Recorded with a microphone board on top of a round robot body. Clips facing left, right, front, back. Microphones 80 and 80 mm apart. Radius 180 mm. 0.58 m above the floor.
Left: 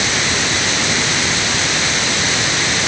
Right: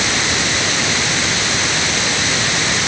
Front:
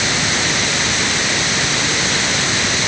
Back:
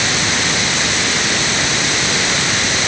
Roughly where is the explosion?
I don't hear an explosion.